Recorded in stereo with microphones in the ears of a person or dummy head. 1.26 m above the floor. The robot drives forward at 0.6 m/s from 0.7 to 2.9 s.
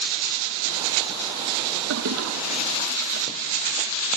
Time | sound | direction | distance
1.9 | a toilet flushing | 75° right (ahead or behind) | 1.5 m